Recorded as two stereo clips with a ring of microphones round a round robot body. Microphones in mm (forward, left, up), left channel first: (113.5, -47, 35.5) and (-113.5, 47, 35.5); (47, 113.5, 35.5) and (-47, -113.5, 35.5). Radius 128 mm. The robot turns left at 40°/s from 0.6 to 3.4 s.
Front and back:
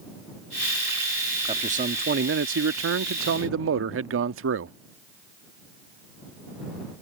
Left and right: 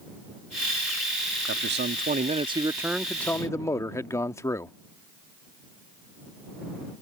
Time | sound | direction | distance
1.5 | a man speaking | 140° right | ?